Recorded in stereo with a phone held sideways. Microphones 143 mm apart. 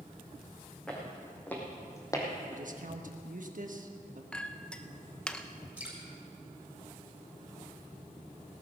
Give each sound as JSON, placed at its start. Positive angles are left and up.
{"t": 0.9, "sound": "footsteps", "side_deg": 5, "distance_m": 4.5}
{"t": 2.5, "sound": "a man speaking", "side_deg": -65, "distance_m": 1.4}
{"t": 4.3, "sound": "a clink", "side_deg": 5, "distance_m": 0.7}
{"t": 5.8, "sound": "dripping", "side_deg": -10, "distance_m": 5.5}